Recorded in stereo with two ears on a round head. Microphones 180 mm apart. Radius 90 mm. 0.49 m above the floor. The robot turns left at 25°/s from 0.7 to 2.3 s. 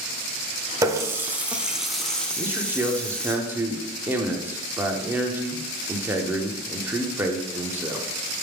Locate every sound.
0.8 s a running tap: 150° right, 0.6 m; by 3.4 s 170° left, 0.6 m
2.4 s a man speaking: 10° right (ahead or behind), 0.7 m